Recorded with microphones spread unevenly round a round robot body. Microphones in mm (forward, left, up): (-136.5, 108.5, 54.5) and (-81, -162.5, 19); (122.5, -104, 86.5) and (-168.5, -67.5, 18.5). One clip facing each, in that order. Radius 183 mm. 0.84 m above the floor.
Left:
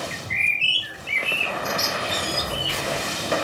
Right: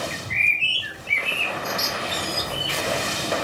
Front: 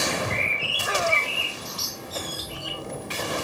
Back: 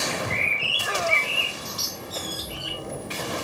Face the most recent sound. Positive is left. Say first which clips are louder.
# right 1 dB, front 1 dB
turn(degrees=155)